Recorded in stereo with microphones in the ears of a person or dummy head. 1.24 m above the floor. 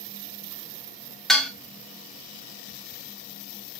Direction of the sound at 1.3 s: Centre (ahead or behind).